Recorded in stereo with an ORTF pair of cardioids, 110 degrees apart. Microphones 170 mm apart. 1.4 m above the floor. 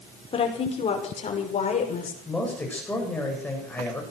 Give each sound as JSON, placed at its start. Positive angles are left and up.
{"t": 0.3, "sound": "a woman speaking", "azimuth_deg": 35, "distance_m": 5.5}
{"t": 2.2, "sound": "a man speaking", "azimuth_deg": 10, "distance_m": 7.5}